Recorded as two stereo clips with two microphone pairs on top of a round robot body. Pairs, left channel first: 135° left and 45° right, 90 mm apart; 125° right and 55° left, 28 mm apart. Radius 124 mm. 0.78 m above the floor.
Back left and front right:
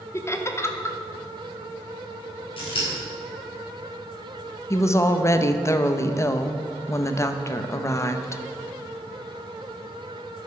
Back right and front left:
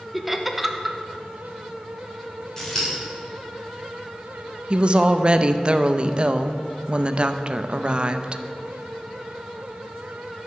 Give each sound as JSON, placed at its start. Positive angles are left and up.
{"t": 0.1, "sound": "laughter", "azimuth_deg": 85, "distance_m": 1.1}
{"t": 2.6, "sound": "scissors", "azimuth_deg": 160, "distance_m": 3.0}
{"t": 4.7, "sound": "a woman speaking", "azimuth_deg": 70, "distance_m": 0.7}